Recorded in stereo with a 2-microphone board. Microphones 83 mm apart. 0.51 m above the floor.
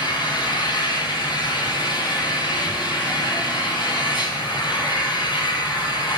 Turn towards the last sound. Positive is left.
turn(degrees=70)  # may be behind; listen again after turning